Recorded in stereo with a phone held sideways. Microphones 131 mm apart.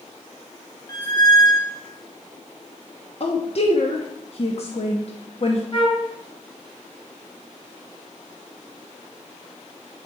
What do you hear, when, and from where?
0.9 s a squeak: 30° left (ahead or behind), 1.7 m
3.2 s a woman speaking: 50° left (ahead or behind), 0.8 m
5.7 s a flute: 40° left (ahead or behind), 1.3 m